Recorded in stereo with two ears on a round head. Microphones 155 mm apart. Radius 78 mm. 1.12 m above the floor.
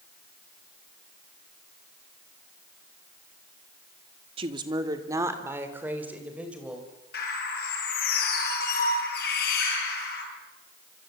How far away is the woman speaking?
About 2 m.